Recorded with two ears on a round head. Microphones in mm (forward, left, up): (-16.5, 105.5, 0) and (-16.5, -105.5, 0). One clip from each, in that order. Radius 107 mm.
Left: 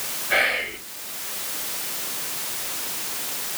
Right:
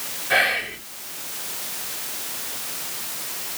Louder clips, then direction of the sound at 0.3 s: Right 1 dB; 35° right (ahead or behind).